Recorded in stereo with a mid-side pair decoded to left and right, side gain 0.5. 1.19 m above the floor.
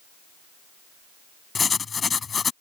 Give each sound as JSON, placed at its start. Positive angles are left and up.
{"t": 1.6, "sound": "writing", "azimuth_deg": 35}